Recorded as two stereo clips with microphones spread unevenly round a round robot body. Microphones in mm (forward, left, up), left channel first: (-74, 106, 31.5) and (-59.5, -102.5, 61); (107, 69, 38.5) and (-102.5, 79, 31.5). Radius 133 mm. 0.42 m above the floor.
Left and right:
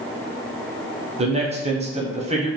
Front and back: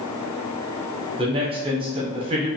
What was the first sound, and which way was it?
A man speaking, 140° right.